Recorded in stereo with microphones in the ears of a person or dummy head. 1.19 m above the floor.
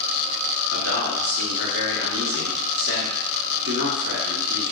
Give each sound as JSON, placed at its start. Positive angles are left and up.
{"t": 0.7, "sound": "a man speaking", "side_deg": -60, "distance_m": 1.0}